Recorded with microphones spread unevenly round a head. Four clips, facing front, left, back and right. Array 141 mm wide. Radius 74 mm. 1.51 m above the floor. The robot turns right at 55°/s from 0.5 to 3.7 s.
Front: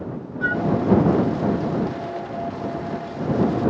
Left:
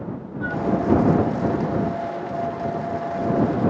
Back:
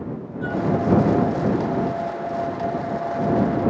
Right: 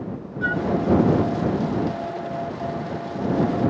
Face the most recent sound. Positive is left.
turn(degrees=105)